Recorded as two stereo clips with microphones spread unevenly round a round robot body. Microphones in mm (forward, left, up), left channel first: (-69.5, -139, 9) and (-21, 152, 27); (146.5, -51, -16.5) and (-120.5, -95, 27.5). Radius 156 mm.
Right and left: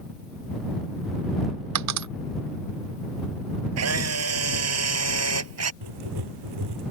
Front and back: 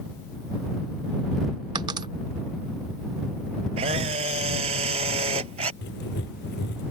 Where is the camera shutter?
115° left.